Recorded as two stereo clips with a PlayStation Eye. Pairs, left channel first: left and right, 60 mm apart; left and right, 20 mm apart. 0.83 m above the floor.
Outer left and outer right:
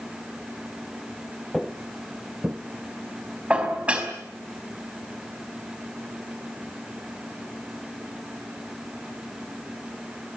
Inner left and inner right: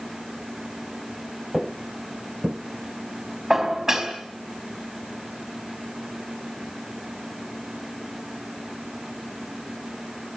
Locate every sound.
1.5 s footsteps: centre (ahead or behind), 1.3 m; by 2.6 s 15° right (ahead or behind), 1.7 m
3.5 s dishes clattering: 20° right (ahead or behind), 4.5 m